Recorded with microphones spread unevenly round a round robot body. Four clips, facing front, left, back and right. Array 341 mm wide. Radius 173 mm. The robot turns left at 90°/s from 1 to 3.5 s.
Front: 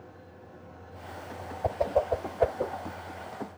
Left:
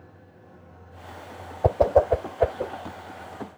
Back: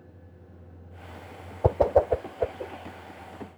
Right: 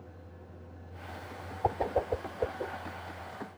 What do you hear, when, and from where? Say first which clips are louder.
1.6 s a whoosh: left 11 dB, back 5 dB; 130° left; by 2.7 s 35° left